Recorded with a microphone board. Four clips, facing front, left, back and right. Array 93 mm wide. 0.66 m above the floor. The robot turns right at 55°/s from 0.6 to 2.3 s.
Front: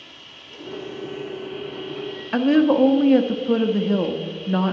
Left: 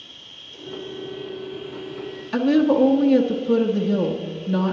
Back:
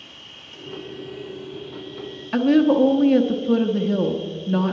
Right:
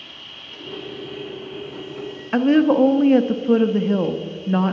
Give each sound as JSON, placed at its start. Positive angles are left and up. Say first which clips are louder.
{"t": 0.0, "sound": "an insect", "louder": "right 5 dB, even", "azimuth_deg": -95, "distance_m": 0.9}
{"t": 2.3, "sound": "a woman speaking", "louder": "right 2 dB, even", "azimuth_deg": -70, "distance_m": 0.7}